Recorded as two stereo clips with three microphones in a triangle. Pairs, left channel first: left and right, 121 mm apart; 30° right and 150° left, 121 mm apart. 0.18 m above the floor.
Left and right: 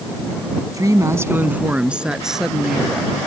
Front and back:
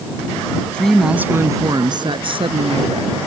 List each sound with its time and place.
0.7 s a woman speaking: 100° right; by 3.2 s straight behind